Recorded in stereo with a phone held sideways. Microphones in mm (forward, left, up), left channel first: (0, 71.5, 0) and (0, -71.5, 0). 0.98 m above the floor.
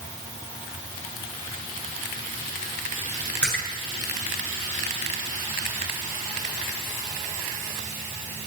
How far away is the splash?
About 8 m.